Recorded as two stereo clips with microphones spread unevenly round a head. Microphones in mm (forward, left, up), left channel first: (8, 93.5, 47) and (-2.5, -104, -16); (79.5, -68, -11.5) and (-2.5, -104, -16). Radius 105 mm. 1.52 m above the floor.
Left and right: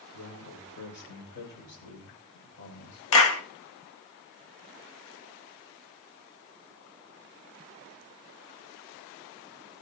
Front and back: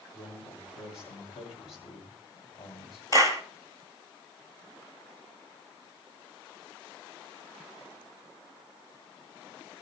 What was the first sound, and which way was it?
A man speaking, 55° left.